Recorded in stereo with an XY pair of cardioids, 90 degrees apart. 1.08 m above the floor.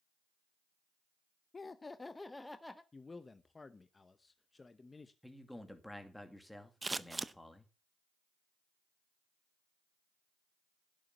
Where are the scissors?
20° right, 0.7 m.